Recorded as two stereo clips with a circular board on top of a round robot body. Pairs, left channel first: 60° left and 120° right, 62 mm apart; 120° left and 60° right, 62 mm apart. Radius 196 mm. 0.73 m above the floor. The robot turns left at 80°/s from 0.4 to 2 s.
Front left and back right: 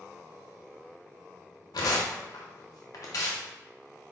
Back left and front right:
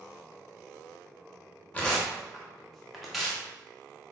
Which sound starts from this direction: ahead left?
Tearing paper, at 1.7 s.